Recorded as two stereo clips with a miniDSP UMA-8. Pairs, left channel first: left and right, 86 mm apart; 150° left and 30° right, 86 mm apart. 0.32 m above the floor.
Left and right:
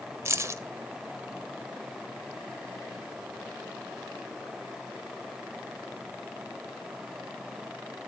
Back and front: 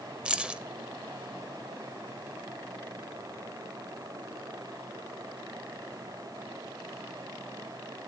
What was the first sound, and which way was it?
Keys jangling, 100° right.